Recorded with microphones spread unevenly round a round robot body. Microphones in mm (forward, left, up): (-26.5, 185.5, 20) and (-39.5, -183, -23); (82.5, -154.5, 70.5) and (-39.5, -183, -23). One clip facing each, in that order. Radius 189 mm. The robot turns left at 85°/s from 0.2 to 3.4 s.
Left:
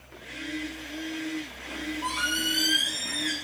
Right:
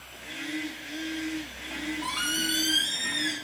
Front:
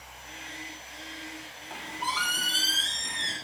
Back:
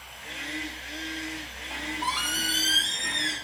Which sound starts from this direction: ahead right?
A squeak, at 1.7 s.